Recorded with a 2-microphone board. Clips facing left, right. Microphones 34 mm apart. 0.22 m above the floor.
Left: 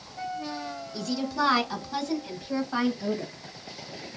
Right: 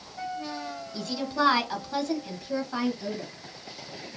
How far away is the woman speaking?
About 1.7 m.